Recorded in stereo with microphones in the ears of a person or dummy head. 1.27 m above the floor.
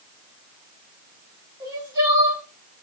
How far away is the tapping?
I don't hear tapping.